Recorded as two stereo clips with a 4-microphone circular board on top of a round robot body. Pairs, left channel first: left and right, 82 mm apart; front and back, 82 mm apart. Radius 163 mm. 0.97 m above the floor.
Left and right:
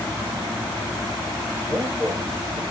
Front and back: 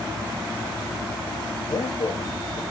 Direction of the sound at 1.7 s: 25° right.